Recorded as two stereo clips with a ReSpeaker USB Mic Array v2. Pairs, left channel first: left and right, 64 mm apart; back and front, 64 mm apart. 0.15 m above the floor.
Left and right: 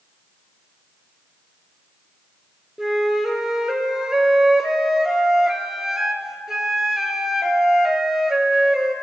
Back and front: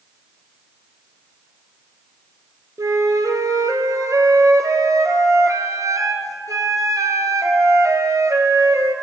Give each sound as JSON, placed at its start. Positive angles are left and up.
{"t": 2.8, "sound": "a flute", "azimuth_deg": -10, "distance_m": 0.7}